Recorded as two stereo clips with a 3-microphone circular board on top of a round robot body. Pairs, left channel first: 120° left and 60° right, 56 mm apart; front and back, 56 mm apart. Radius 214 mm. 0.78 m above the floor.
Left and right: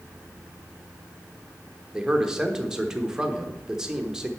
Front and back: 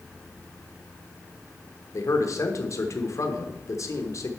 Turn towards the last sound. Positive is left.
turn(degrees=20)